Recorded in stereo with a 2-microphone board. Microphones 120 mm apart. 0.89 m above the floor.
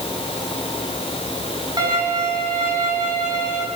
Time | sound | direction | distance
1.8 | a violin | 40° right (ahead or behind) | 5 m